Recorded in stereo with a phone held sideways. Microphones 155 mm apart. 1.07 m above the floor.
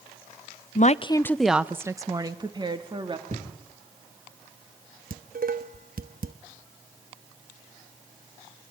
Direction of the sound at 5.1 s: 65° right (ahead or behind).